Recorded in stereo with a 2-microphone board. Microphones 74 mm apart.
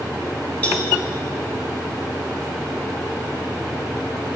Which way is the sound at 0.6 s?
20° left (ahead or behind).